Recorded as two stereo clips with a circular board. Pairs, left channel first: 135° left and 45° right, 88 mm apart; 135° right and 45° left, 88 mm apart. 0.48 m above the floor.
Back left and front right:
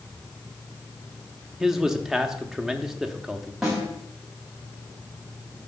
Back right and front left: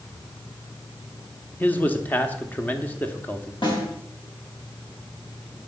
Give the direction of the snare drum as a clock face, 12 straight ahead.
4 o'clock.